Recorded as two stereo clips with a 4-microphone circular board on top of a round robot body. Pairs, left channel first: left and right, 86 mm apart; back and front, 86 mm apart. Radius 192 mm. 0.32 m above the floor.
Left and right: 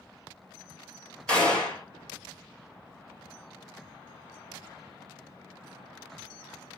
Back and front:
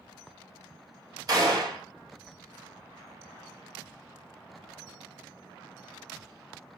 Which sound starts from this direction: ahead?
A gunshot, at 1.3 s.